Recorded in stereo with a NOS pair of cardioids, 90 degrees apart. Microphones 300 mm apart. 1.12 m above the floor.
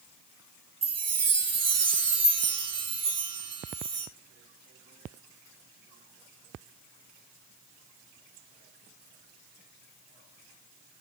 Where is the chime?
60° right, 2.5 m.